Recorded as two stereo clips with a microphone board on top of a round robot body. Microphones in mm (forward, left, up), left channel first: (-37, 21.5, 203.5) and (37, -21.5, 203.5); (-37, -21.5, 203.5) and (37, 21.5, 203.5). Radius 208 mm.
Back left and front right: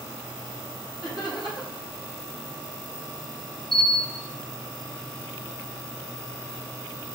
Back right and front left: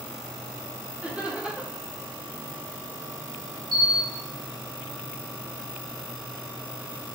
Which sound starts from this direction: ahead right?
Laughter, at 1.0 s.